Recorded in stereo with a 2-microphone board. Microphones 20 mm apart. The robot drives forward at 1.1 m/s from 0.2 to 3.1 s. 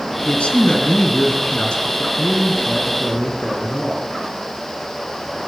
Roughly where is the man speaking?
Left.